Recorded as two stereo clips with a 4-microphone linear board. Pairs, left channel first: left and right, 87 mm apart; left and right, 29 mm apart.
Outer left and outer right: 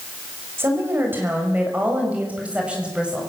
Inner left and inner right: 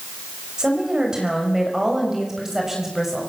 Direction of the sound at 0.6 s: 25° right (ahead or behind).